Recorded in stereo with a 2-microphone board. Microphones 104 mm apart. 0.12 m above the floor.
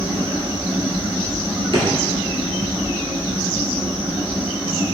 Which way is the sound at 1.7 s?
55° right (ahead or behind).